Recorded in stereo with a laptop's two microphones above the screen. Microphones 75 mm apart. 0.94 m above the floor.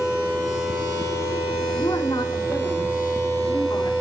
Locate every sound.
1.8 s a woman speaking: 70° left (ahead or behind), 3.5 m